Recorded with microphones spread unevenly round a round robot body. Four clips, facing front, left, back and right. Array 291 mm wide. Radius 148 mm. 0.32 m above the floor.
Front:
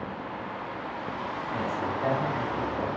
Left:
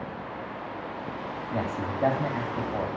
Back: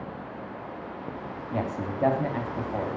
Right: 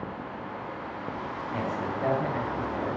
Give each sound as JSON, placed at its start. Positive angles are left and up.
{"t": 1.5, "sound": "a man speaking", "azimuth_deg": 155, "distance_m": 2.5}